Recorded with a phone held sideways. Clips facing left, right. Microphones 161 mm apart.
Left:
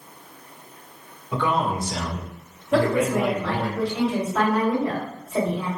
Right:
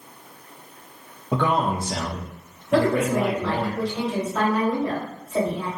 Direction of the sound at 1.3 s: 60° right (ahead or behind).